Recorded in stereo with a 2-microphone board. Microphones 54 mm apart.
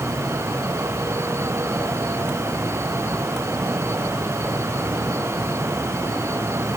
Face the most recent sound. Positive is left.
No sound to turn to.